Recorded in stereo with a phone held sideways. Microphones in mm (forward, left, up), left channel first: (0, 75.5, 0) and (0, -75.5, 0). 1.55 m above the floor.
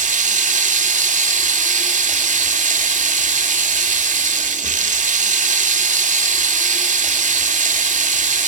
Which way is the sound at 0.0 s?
55° right (ahead or behind).